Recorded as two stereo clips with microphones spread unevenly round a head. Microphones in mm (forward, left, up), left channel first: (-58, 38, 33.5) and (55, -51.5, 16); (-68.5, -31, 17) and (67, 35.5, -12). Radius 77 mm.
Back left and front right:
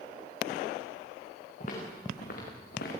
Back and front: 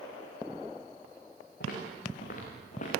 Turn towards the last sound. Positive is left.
turn(degrees=165)